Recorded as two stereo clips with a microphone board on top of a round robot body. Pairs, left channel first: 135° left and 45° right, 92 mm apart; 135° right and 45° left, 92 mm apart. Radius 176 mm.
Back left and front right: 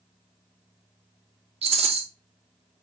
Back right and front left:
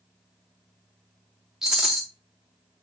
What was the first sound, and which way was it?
A rattle, 40° right.